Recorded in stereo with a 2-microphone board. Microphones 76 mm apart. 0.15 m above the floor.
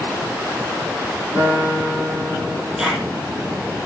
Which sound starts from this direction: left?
A guitar, at 1.4 s.